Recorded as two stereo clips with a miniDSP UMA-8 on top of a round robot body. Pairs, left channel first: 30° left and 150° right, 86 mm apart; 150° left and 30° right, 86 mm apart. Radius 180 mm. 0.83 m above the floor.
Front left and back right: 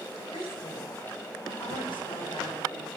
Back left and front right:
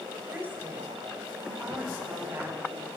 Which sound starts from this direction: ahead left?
A woman speaking, at 0.3 s.